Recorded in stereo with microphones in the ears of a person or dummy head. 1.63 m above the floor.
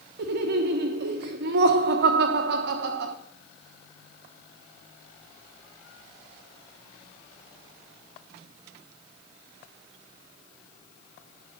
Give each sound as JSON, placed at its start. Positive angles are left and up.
{"t": 0.2, "sound": "laughter", "side_deg": -55, "distance_m": 1.2}